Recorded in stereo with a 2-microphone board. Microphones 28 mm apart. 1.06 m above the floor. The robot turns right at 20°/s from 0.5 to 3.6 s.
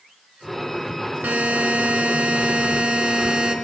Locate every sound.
1.2 s a buzzer: 85° right, 1.5 m; by 3.5 s 40° right, 1.5 m